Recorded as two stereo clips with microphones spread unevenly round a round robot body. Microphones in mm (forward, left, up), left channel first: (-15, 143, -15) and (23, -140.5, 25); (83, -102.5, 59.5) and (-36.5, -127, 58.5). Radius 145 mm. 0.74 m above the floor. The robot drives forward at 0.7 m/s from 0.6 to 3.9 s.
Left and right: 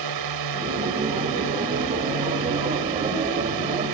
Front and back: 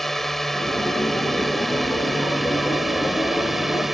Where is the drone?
75° right; by 3.9 s 80° right.